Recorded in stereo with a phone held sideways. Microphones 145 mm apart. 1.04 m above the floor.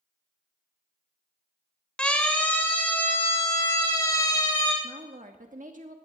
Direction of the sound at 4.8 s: 65° right (ahead or behind).